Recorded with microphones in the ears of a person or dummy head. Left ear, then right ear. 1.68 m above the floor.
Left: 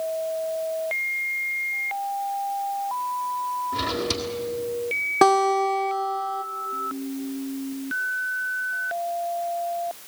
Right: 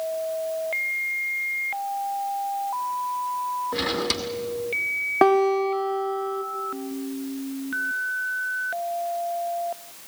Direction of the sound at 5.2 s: 10° right (ahead or behind).